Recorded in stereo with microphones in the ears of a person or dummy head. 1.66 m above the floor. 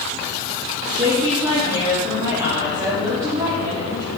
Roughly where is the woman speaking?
Right.